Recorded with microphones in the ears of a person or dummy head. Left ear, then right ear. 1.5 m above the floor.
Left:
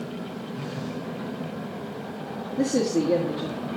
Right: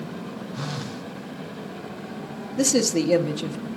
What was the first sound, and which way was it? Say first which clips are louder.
A phone buzzing: right 2 dB; 55° right (ahead or behind).